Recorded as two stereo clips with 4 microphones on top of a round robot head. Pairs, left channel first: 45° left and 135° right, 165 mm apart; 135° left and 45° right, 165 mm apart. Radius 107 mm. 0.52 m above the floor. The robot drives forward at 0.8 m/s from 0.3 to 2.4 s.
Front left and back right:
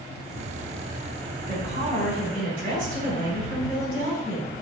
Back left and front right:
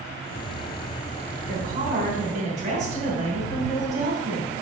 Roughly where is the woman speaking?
Right.